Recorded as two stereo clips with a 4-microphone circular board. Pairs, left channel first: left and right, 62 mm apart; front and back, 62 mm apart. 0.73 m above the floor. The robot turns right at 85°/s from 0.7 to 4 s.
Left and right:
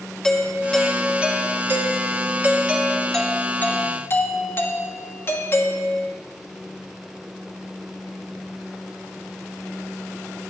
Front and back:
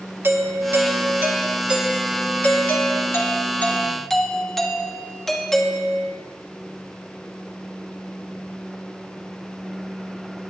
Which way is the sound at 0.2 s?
160° left.